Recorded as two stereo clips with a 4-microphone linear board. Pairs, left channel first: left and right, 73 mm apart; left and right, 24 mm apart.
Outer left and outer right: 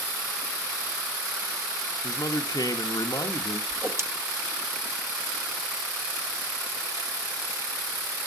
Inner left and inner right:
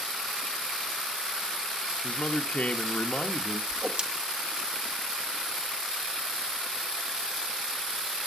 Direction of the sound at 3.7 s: 35° right (ahead or behind).